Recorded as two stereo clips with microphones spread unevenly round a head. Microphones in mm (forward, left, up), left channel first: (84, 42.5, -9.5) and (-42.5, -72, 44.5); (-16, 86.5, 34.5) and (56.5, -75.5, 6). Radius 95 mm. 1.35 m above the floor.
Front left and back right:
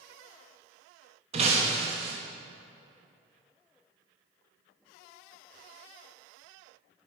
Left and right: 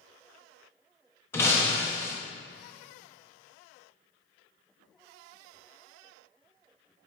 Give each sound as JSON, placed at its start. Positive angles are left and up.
{"t": 1.3, "sound": "breaking glass", "azimuth_deg": -175, "distance_m": 1.0}